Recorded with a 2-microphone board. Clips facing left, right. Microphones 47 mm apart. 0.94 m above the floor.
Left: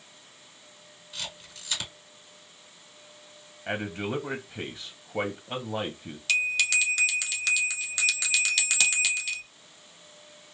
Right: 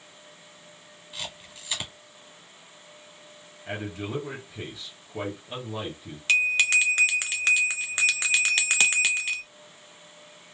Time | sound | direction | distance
1.1 | a camera shutter | 15° right (ahead or behind) | 1.9 m
3.7 | a man speaking | 25° left (ahead or behind) | 0.8 m
6.3 | a bell | 35° right (ahead or behind) | 0.6 m